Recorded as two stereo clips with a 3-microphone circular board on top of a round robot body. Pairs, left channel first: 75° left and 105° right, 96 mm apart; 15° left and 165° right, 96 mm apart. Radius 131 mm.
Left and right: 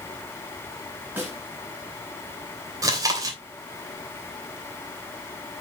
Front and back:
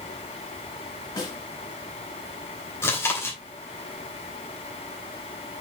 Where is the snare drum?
35° right, 4.5 m.